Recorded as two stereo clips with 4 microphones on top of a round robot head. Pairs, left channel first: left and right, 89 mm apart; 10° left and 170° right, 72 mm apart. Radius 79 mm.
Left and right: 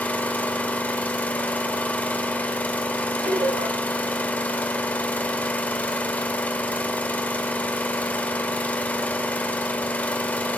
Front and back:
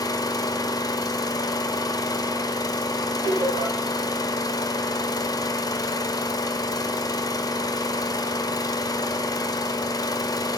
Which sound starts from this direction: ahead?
An engine running, at 0.0 s.